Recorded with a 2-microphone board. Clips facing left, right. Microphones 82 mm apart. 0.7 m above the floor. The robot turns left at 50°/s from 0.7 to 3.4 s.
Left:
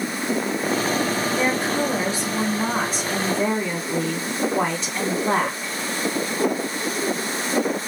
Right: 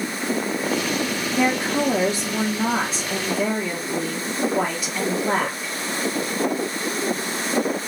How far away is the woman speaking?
About 1.4 m.